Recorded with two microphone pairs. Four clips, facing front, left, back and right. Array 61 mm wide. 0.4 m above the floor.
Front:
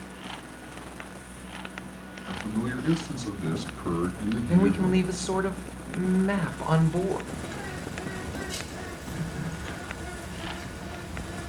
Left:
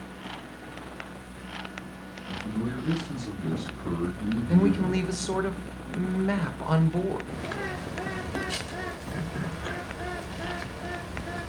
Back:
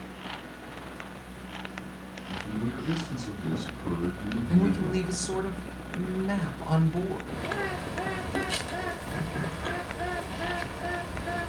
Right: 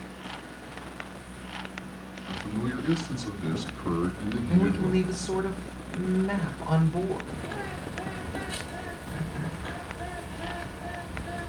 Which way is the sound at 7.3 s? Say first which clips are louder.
Left 2 dB, back 4 dB; 165° left.